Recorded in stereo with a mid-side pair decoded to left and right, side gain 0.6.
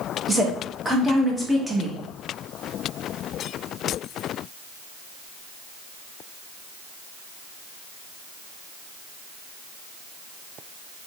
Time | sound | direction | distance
0.3 | a woman speaking | 10° right | 1.3 m